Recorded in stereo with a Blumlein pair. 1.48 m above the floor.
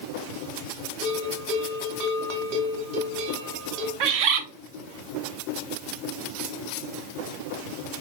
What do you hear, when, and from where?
1.0 s a bell: 50° right, 1.8 m
4.0 s a bird: 45° right, 0.9 m